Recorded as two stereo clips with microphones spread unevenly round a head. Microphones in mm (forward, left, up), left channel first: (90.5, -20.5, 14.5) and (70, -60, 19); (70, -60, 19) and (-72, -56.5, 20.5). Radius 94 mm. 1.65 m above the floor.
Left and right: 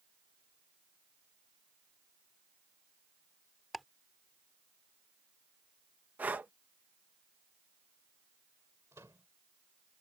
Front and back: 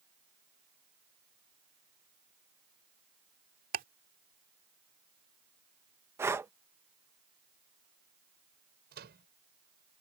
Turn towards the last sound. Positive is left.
turn(degrees=180)